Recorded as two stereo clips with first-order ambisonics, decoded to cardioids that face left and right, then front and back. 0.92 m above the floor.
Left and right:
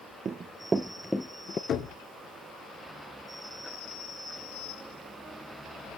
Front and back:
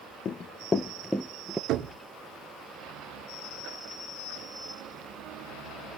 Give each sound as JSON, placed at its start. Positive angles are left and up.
{"t": 0.2, "sound": "running footsteps", "azimuth_deg": -40, "distance_m": 1.1}
{"t": 1.7, "sound": "knocking", "azimuth_deg": 140, "distance_m": 2.0}